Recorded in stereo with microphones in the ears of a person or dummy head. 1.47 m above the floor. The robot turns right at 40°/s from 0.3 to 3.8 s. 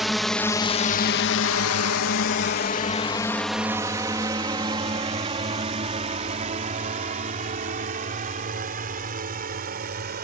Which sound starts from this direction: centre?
A drone, at 0.0 s.